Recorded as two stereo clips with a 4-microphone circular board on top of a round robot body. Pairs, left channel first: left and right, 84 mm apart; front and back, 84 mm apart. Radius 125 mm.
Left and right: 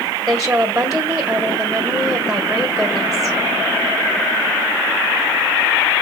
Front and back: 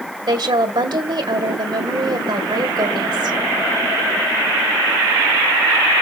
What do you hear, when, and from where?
0.3 s a woman speaking: 175° right, 2.0 m